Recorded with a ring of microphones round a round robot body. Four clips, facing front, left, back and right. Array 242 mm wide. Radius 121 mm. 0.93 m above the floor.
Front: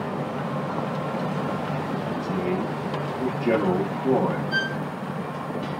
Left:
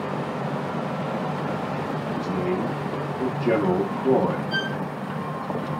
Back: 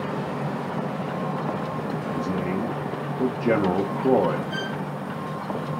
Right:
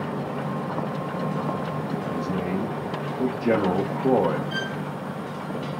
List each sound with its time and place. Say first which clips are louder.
2.1 s a man speaking: left 3 dB, even; 145° right, 0.8 m
4.5 s a violin: left 2 dB, front 3 dB; 145° right, 2 m